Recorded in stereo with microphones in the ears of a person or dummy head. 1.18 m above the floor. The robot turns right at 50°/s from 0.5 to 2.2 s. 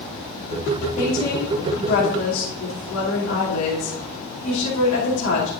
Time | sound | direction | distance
1.0 | a woman speaking | 45° left | 2.5 m